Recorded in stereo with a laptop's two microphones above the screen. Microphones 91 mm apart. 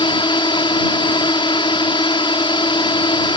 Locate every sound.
0.0 s a drone: 60° left (ahead or behind)